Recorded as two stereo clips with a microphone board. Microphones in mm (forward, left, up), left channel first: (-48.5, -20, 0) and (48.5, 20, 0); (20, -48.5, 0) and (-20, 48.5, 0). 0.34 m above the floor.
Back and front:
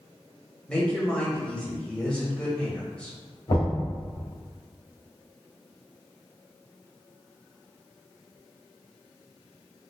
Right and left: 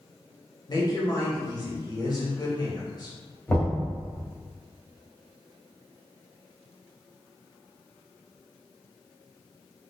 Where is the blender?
I don't hear a blender.